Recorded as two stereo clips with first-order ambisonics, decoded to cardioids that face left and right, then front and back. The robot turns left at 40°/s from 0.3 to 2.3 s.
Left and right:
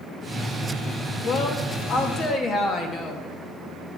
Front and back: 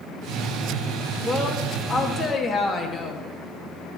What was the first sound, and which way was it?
A woman speaking, 90° left.